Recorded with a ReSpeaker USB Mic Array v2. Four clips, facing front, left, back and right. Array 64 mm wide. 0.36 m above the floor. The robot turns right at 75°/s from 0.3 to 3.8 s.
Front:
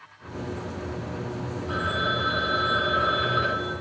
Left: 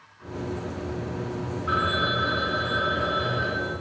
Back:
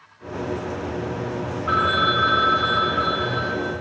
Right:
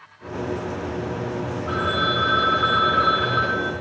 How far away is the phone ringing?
About 1.7 m.